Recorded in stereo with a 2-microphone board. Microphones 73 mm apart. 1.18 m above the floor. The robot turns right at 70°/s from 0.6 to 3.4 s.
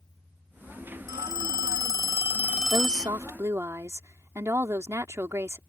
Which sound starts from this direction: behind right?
A phone ringing, at 1.1 s.